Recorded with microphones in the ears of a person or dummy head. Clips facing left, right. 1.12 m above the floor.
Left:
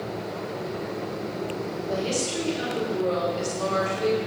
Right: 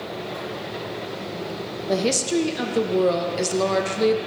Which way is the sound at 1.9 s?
65° right (ahead or behind).